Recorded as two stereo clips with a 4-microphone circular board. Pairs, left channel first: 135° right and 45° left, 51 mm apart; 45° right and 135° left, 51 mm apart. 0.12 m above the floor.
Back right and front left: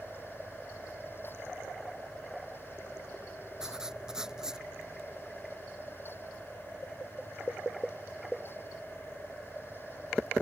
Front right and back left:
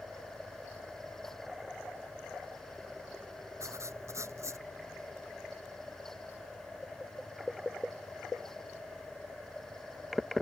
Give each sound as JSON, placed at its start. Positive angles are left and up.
{"t": 3.6, "sound": "writing", "azimuth_deg": 120}